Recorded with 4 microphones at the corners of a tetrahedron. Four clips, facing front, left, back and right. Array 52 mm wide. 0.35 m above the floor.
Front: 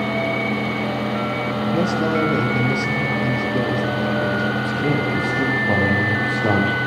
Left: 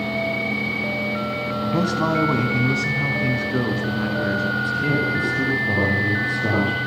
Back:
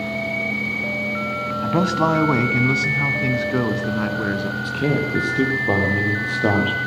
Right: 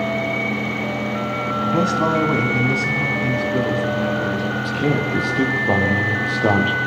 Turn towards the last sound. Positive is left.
turn(degrees=-135)